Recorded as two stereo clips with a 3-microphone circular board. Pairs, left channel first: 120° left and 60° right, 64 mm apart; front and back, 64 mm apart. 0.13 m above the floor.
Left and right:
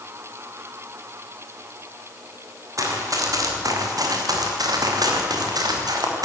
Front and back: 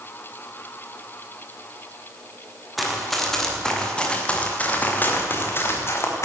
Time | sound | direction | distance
2.8 | running footsteps | 90° right | 7 m